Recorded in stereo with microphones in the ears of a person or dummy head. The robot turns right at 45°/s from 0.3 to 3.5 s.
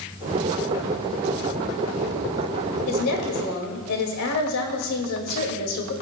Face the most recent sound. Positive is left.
turn(degrees=75)  # may be behind; listen again after turning